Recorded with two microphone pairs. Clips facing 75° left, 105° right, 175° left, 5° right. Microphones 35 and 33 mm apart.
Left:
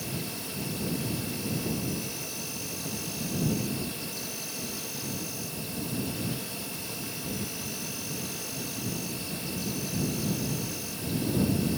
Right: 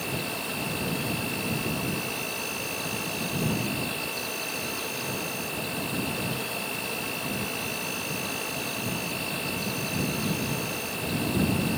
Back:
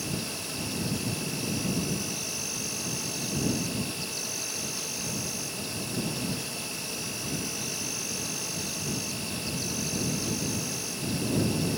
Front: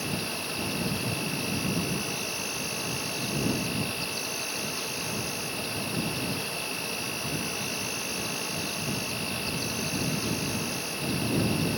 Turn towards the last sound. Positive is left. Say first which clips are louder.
# right 5 dB, front 2 dB
turn(degrees=-70)